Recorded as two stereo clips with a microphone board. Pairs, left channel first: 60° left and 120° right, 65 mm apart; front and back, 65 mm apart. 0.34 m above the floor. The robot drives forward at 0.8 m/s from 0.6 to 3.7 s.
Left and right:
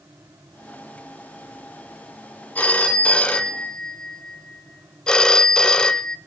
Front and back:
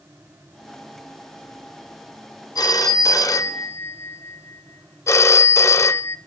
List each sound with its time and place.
2.5 s a phone ringing: 5° right, 1.7 m; by 6.2 s 10° right, 0.9 m